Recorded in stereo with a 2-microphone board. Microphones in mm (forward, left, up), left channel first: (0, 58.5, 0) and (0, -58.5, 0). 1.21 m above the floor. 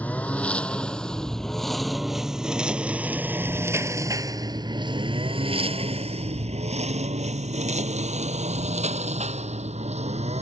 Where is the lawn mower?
10° left (ahead or behind); by 10.4 s 70° right (ahead or behind).